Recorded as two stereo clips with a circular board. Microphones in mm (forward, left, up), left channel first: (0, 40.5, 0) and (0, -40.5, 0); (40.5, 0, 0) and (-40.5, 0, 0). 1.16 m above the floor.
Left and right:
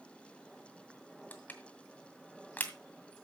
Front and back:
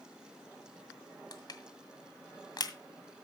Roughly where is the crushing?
Ahead left.